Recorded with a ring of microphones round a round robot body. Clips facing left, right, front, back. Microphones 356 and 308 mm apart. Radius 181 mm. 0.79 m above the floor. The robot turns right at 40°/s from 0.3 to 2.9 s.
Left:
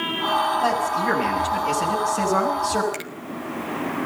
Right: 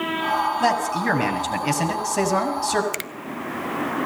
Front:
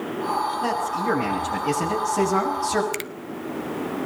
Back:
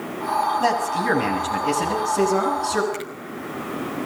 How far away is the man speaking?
About 7 m.